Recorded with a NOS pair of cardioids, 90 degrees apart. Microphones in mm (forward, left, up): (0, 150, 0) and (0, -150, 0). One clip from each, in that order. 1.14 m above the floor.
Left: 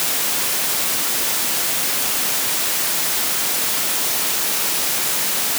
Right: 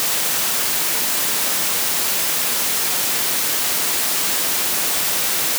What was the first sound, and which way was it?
Only background noise.